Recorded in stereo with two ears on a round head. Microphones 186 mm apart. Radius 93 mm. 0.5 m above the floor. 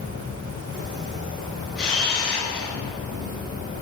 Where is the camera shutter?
5° left (ahead or behind), 2.5 m.